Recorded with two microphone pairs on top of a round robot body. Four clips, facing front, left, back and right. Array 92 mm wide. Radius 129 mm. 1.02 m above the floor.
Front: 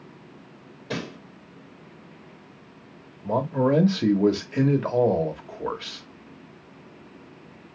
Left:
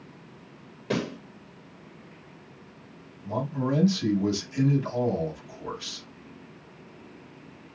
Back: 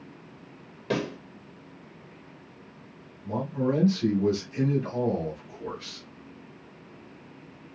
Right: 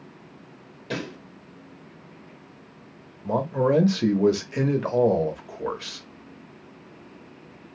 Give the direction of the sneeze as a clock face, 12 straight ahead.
No sneeze in this recording.